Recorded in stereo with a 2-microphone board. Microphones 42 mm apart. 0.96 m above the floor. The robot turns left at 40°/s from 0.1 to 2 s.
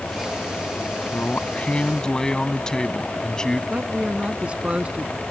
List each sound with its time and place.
1.1 s a man speaking: 50° left; by 3.6 s 15° left
3.7 s a man speaking: 30° right (ahead or behind)